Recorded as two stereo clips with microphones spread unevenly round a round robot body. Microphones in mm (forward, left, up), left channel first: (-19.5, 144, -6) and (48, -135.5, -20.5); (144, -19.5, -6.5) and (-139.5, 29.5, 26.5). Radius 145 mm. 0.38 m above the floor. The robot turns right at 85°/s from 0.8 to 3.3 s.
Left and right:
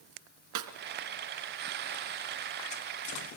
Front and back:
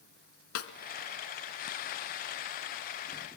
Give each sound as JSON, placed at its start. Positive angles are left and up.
{"t": 0.6, "sound": "a snare drum", "azimuth_deg": -50, "distance_m": 1.7}